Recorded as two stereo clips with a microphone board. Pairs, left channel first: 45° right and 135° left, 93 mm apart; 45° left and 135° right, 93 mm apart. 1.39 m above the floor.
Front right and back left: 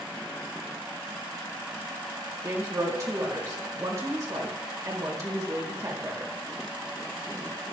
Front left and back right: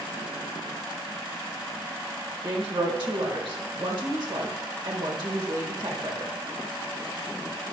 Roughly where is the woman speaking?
Behind.